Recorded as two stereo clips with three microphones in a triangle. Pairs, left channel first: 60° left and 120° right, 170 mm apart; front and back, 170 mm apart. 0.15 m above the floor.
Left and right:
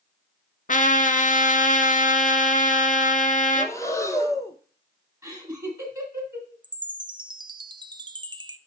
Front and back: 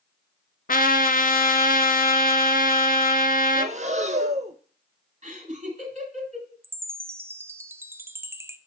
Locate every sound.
0.7 s a trumpet: 25° left, 0.7 m
3.5 s breathing: 130° left, 0.8 m
5.2 s laughter: 170° left, 2 m
6.6 s a chime: 125° right, 0.5 m